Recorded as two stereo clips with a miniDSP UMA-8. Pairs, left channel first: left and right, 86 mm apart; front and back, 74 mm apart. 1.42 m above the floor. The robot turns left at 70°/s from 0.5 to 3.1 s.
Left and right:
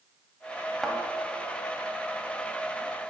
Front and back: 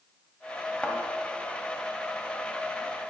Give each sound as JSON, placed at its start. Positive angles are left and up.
{"t": 0.8, "sound": "a thud", "azimuth_deg": 5, "distance_m": 1.3}